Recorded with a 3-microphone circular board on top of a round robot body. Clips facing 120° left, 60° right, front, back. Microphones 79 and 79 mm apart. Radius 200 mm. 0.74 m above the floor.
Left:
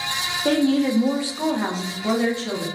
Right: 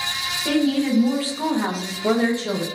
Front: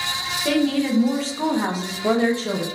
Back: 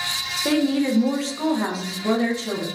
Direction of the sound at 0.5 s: 125° left.